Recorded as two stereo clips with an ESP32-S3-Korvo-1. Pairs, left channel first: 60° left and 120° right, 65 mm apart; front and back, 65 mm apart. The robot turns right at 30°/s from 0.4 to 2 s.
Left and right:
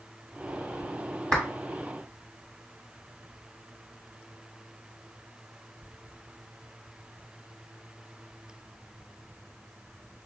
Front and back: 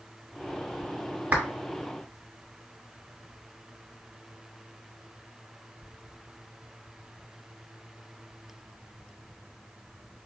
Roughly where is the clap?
Behind left.